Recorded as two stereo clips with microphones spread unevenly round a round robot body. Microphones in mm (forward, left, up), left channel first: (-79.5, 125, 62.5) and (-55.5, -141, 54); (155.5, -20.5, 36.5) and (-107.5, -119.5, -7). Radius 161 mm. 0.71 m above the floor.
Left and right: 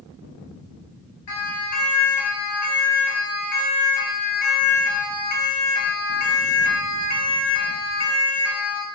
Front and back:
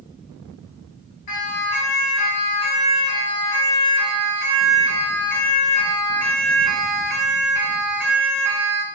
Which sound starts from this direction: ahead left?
A siren, at 1.3 s.